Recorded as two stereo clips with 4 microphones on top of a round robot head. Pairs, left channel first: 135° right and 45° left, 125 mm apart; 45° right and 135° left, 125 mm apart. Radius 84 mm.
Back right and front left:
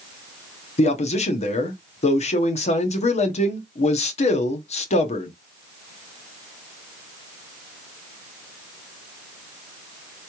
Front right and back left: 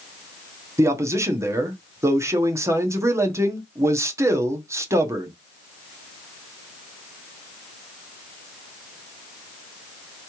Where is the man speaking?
160° right, 1.0 m.